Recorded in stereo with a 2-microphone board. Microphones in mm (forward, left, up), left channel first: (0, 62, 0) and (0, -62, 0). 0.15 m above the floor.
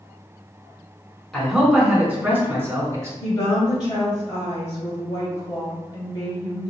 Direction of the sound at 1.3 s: 5° left (ahead or behind).